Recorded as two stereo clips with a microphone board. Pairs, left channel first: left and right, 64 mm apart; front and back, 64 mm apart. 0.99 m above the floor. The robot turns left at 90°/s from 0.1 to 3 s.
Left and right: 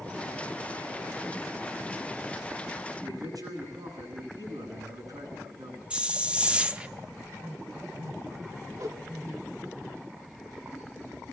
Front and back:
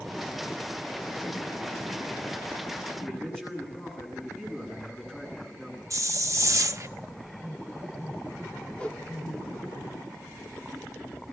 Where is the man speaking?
80° right, 9.5 m.